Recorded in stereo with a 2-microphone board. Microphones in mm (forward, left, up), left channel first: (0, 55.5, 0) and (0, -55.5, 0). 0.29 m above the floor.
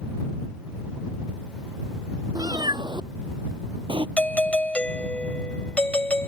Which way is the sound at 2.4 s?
45° right (ahead or behind).